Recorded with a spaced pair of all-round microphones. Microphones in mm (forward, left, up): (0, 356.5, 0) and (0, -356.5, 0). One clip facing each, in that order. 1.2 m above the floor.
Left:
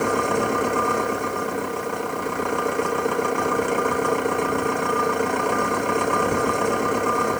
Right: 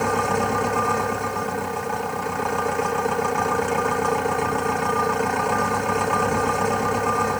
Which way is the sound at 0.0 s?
30° right (ahead or behind).